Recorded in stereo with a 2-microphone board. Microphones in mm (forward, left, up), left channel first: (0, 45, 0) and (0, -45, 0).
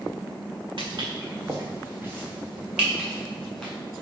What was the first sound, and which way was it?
Footsteps, 55° right (ahead or behind).